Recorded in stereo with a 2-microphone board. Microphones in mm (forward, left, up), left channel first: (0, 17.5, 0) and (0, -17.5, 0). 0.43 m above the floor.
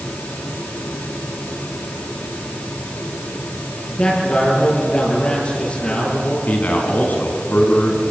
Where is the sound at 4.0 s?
40° left (ahead or behind), 6.5 m.